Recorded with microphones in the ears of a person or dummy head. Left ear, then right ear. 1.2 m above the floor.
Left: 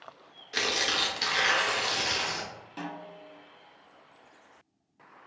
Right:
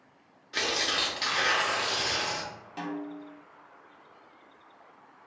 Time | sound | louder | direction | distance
0.5 | tearing paper | left 1 dB | 10° left (ahead or behind) | 0.6 m
2.8 | a snare drum | right 3 dB | centre (ahead or behind) | 0.6 m